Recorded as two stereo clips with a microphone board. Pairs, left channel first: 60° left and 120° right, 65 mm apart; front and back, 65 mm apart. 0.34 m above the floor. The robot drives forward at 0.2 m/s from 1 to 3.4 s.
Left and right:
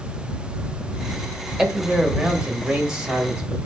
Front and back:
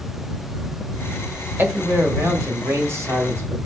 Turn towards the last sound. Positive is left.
turn(degrees=170)